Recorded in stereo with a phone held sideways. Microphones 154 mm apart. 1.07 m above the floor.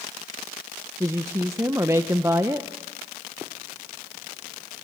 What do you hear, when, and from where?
1.0 s a woman speaking: 20° right (ahead or behind), 0.7 m